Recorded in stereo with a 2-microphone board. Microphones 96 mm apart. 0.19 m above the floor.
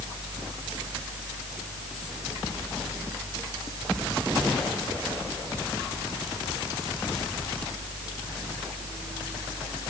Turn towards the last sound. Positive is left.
No sound to turn to.